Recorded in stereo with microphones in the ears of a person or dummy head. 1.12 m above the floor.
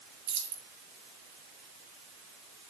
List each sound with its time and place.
0.3 s keys jangling: 80° right, 4 m